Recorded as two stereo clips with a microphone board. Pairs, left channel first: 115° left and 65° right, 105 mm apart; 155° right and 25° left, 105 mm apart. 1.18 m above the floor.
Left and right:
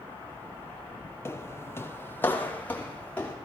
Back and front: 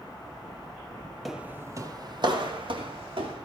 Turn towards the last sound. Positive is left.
turn(degrees=40)